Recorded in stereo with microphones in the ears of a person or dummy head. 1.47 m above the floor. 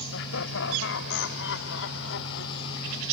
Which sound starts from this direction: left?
Laughter, at 0.1 s.